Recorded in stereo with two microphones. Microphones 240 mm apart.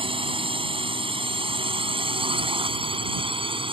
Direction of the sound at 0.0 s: 20° right (ahead or behind).